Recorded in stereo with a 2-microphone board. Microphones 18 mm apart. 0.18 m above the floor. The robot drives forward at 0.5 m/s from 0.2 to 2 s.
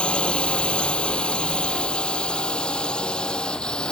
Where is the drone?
75° left (ahead or behind); by 3.9 s 50° left (ahead or behind).